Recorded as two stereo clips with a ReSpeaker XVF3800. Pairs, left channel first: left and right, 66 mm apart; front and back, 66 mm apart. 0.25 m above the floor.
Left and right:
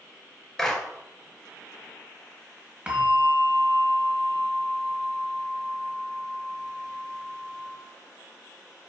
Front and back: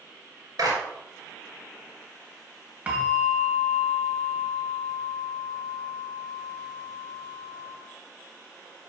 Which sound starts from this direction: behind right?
A bell, at 2.9 s.